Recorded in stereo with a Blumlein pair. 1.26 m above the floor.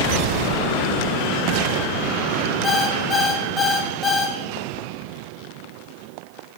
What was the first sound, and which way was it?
An alarm clock, 10° left.